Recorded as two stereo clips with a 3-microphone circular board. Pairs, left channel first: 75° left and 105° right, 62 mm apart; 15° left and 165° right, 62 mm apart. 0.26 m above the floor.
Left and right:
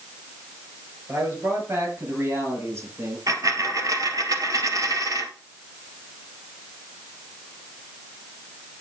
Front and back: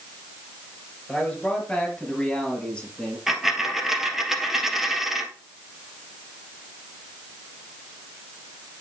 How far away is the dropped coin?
About 1.5 m.